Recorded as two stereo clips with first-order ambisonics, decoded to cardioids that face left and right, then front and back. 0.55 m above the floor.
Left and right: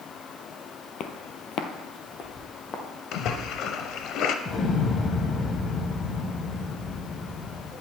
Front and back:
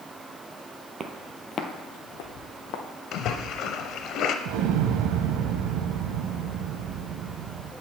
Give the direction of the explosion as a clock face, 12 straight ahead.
7 o'clock.